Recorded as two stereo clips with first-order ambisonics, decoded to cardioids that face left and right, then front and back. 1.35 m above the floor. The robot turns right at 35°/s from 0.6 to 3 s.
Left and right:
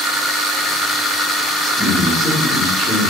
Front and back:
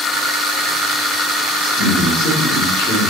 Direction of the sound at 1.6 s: 15° right.